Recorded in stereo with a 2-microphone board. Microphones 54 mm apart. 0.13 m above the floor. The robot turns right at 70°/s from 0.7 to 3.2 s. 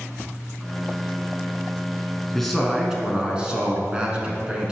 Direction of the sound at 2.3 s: 5° left (ahead or behind).